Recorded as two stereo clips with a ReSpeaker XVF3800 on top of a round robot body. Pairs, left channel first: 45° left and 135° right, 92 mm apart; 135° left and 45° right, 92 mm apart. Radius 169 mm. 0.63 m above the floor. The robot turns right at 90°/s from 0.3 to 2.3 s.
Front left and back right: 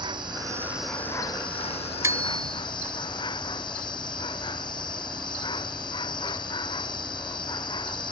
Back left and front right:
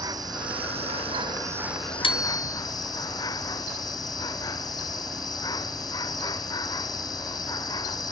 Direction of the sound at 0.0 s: 95° right.